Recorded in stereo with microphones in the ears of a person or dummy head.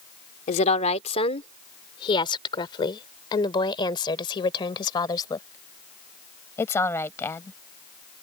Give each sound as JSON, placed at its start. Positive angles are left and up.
{"t": 0.5, "sound": "a woman speaking", "side_deg": 45}